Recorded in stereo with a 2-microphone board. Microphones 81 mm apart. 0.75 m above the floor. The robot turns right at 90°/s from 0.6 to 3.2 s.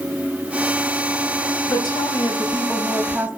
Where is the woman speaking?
55° left, 3.5 m; by 3.3 s 170° right, 3.5 m.